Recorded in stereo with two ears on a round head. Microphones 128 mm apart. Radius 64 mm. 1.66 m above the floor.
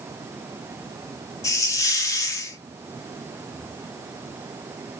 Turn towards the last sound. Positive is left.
turn(degrees=20)  # may be behind; listen again after turning